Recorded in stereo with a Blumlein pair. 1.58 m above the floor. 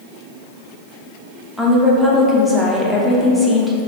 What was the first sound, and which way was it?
A woman speaking, 5° left.